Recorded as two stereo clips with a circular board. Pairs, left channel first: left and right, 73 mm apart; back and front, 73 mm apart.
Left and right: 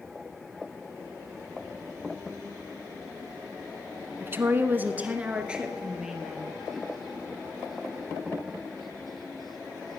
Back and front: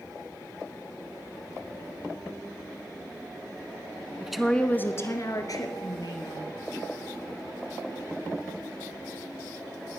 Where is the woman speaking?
75° right, 1.2 m; by 6.5 s 175° right, 3 m.